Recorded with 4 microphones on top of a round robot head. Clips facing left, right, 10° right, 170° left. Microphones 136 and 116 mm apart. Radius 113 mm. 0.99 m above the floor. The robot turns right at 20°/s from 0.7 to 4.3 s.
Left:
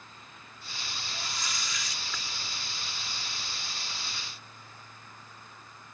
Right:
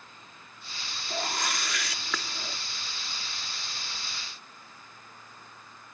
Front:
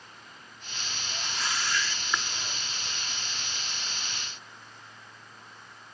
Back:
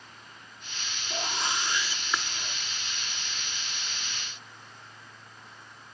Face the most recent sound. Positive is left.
turn(degrees=-65)